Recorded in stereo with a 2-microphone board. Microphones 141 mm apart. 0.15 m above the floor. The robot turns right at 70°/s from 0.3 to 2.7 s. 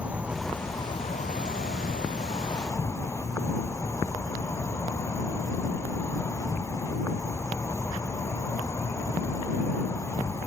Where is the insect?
10° right; by 10.5 s 160° left.